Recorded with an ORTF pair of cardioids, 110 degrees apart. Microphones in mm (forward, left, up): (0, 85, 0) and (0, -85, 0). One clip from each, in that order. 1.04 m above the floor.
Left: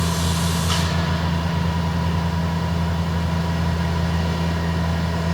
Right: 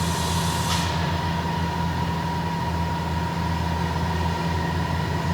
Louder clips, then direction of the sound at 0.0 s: Left 1 dB; 25° left.